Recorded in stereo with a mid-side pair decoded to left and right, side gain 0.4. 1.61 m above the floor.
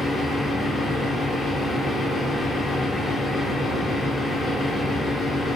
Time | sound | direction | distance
0.0 | a fan | 35° left | 0.9 m